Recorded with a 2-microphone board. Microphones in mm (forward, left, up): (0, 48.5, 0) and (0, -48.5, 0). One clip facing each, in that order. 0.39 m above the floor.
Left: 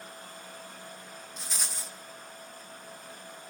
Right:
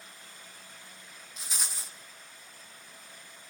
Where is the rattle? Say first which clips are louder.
Even; 5° right (ahead or behind), 1.9 m.